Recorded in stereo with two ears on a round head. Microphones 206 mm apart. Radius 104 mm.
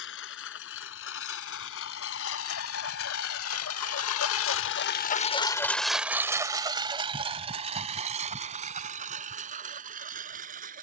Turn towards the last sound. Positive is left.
turn(degrees=-40)  # may be behind; listen again after turning